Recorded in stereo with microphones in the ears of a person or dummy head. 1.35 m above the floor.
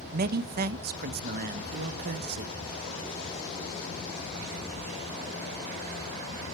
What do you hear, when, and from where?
0.1 s a man speaking: 50° right (ahead or behind), 1.2 m